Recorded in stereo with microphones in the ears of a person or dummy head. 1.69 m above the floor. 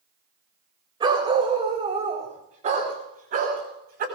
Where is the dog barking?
25° right (ahead or behind), 3 m; by 4.0 s 50° right (ahead or behind), 5 m.